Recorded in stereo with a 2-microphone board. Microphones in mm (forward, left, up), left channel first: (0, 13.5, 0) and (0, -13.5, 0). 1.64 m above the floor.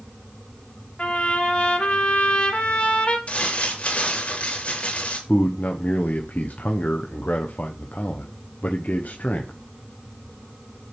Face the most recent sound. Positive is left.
turn(degrees=85)